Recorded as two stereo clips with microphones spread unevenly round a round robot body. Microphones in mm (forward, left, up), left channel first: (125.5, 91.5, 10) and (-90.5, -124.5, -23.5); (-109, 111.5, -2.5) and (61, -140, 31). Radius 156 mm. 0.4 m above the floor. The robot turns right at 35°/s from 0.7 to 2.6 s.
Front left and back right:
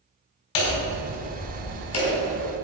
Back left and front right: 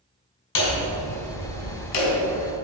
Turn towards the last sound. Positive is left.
turn(degrees=140)